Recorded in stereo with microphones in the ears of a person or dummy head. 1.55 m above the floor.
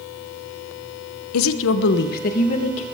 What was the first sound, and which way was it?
A woman speaking, 80° left.